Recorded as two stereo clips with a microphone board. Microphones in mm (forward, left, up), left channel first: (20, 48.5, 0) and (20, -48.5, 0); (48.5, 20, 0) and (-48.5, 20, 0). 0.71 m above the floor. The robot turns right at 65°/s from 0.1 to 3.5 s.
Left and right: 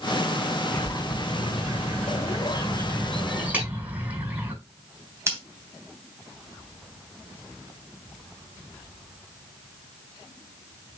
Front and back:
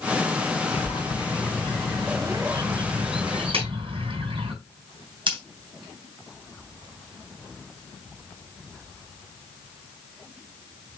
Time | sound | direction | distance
0.7 | a bird | 15° left | 5.5 m
3.5 | a clap | 165° right | 5 m
5.3 | scissors | 150° right | 3 m